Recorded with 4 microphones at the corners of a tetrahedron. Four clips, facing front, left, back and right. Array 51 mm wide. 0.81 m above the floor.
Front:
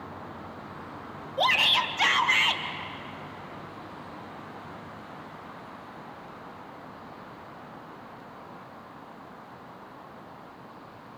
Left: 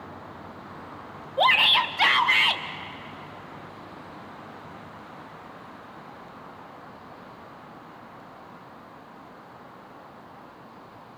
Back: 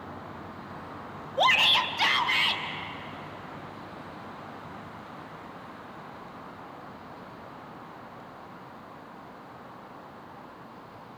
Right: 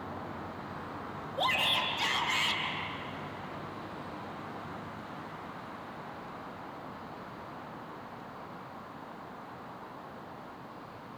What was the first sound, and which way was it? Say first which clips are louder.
A shout: left 10 dB, back 1 dB; 105° left.